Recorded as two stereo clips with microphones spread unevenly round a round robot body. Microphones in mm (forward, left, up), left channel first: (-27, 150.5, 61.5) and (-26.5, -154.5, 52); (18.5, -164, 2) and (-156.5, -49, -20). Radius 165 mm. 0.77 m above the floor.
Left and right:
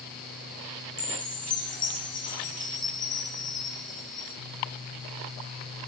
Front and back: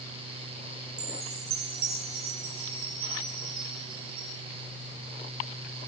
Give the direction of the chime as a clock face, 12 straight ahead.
7 o'clock.